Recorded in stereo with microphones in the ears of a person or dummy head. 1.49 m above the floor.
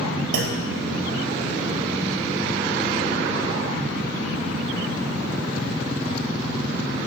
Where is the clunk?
80° right, 1.0 m.